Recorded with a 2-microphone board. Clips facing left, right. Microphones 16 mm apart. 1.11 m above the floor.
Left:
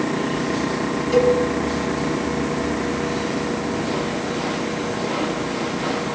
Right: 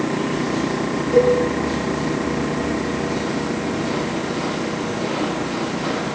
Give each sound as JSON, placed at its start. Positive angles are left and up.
{"t": 1.1, "sound": "a cowbell", "side_deg": 45, "distance_m": 7.5}